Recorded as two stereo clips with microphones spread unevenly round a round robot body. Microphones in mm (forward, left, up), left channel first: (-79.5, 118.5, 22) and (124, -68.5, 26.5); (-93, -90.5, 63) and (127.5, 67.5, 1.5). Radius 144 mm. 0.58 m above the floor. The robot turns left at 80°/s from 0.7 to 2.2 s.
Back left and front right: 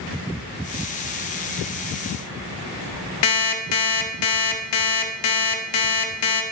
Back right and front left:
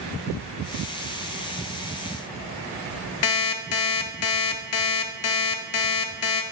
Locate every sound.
3.2 s an alarm clock: 175° left, 0.6 m